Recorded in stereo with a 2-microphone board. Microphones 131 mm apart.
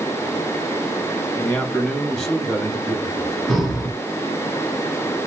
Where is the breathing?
Centre (ahead or behind), 0.9 m.